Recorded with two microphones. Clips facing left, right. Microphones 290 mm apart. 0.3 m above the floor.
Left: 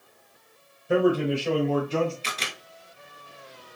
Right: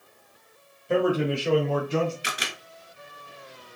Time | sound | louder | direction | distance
0.9 | a man speaking | left 2 dB | 10° left (ahead or behind) | 1.0 m
2.2 | a camera shutter | right 1 dB | 15° right (ahead or behind) | 1.0 m